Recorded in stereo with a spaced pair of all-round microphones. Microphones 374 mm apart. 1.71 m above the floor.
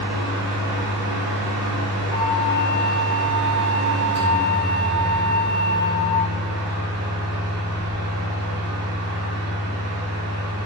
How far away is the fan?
About 1.3 m.